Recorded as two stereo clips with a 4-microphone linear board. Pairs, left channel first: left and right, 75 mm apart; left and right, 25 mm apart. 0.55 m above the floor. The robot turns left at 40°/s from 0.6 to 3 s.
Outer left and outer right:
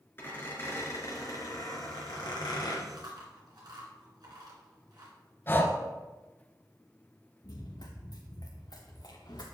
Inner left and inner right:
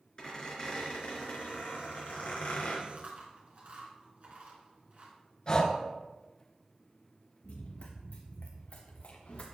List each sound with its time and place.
0.2 s a squeak: 150° left, 3.5 m; by 2.8 s 65° left, 3.5 m
2.9 s chewing: 75° right (ahead or behind), 2.5 m; by 5.2 s 70° right (ahead or behind), 2.5 m
5.5 s breathing: 30° left (ahead or behind), 1.2 m
7.4 s running footsteps: 75° left (ahead or behind), 2.5 m; by 9.6 s 65° left (ahead or behind), 2.5 m